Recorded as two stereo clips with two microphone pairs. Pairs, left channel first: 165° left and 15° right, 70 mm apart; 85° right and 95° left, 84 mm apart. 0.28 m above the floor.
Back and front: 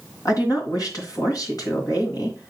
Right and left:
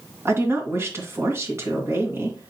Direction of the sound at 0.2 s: 150° left.